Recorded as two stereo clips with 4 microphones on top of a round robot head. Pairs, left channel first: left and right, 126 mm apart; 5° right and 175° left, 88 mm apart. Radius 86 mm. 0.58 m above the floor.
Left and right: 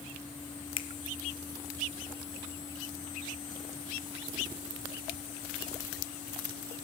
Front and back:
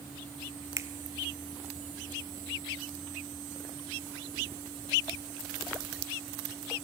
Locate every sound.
0.8 s a finger snap: 125° left, 1.0 m